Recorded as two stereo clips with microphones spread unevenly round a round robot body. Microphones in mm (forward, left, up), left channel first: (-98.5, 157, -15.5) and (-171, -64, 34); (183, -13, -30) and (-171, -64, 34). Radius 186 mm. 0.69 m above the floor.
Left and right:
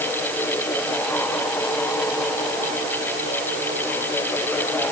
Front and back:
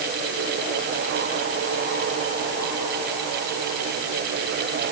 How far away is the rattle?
I don't hear a rattle.